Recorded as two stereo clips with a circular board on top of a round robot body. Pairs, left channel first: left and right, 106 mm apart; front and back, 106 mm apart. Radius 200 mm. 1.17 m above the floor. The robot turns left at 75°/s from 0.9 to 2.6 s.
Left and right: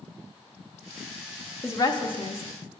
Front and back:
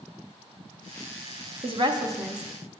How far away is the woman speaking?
About 0.8 m.